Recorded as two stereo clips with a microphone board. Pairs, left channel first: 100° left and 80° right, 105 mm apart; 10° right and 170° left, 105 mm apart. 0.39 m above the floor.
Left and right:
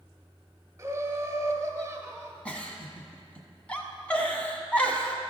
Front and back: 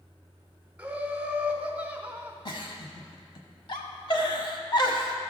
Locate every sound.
0.8 s laughter: 120° right, 1.2 m
2.5 s a giggle: 25° left, 1.1 m